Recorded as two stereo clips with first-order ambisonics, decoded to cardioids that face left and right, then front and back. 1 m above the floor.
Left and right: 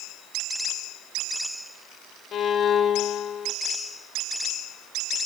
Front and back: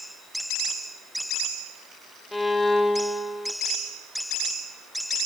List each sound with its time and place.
2.3 s a violin: 75° left, 0.9 m